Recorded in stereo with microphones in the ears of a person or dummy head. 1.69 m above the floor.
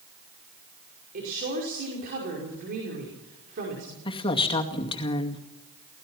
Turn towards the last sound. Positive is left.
turn(degrees=30)  # may be behind; listen again after turning